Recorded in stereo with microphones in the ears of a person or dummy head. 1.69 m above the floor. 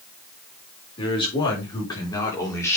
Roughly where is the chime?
No chime in this recording.